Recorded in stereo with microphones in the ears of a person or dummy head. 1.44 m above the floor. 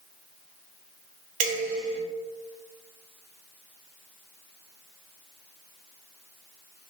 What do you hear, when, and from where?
1.4 s dishes clattering: 40° right (ahead or behind), 0.9 m